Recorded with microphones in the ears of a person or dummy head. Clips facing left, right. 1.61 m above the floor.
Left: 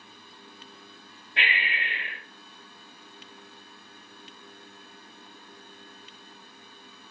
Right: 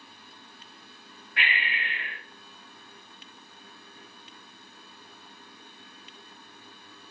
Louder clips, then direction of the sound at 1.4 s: Left 1 dB; 20° left (ahead or behind).